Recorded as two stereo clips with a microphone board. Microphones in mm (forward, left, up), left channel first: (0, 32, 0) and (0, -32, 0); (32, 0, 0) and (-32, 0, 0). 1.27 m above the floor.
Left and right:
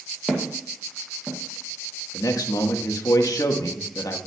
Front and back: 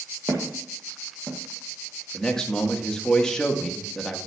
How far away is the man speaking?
About 1.5 m.